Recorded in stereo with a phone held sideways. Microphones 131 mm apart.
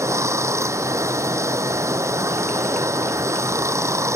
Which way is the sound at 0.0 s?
20° right (ahead or behind).